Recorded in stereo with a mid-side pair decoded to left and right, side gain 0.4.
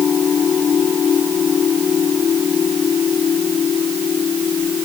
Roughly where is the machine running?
Ahead left.